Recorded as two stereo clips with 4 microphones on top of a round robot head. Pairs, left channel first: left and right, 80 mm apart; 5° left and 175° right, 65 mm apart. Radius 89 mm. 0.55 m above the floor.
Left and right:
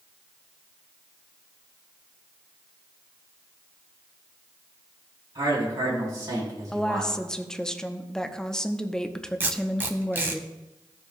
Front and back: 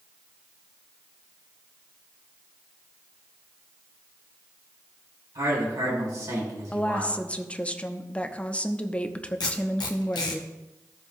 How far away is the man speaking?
About 5 m.